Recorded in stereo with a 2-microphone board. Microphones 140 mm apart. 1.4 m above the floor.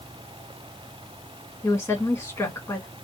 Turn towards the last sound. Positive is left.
turn(degrees=20)  # may be behind; listen again after turning